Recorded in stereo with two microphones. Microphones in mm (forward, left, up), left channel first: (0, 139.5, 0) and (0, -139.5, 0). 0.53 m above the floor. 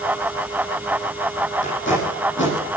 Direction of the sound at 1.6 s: 45° left (ahead or behind).